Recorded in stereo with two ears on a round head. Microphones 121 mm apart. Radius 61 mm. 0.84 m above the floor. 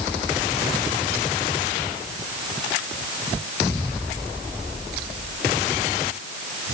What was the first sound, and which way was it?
Only background noise.